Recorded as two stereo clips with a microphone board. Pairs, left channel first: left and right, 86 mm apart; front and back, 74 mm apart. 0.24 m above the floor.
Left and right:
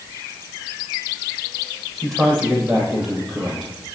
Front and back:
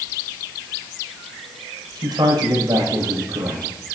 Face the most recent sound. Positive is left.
turn(degrees=180)